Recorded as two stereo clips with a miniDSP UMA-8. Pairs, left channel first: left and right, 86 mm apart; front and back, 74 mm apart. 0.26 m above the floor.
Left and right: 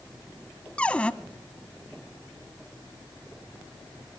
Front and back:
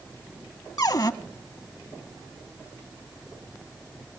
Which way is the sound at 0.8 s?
15° left.